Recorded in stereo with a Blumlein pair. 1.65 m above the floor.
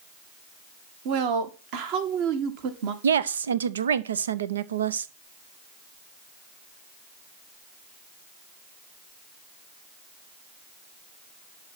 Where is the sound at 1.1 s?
45° right, 1.9 m.